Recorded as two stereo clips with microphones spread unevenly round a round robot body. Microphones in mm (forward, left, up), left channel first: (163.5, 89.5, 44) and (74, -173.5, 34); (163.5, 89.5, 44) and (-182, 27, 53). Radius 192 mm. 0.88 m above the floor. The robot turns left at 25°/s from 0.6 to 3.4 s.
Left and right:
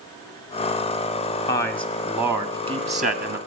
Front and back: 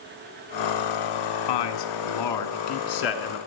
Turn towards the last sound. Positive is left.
turn(degrees=-55)